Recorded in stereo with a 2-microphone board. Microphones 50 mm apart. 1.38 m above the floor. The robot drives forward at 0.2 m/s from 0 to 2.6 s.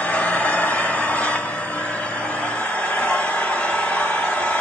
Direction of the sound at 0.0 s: 35° left (ahead or behind).